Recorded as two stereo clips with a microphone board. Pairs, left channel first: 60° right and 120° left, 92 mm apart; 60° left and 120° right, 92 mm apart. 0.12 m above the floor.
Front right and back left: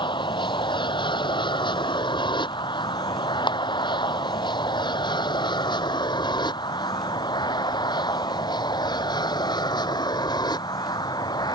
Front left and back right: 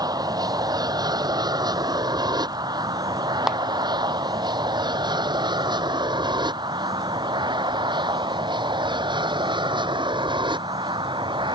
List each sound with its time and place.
0.0 s an aircraft: 80° right; by 11.6 s 95° right
3.5 s a clap: 35° right